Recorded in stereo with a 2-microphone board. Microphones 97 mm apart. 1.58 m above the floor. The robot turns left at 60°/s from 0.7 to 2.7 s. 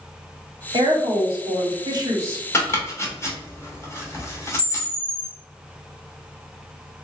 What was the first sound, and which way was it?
A woman speaking, 60° right.